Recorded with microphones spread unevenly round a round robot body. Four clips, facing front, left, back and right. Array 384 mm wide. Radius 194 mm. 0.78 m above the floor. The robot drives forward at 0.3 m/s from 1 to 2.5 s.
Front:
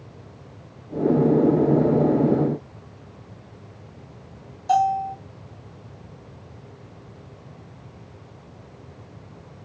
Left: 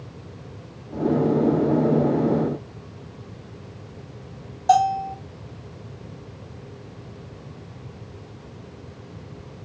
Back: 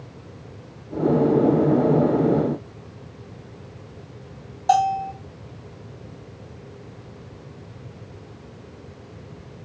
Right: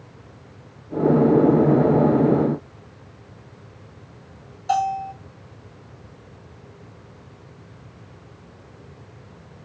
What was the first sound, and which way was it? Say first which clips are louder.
A bell: left 4 dB, back 1 dB; 155° left.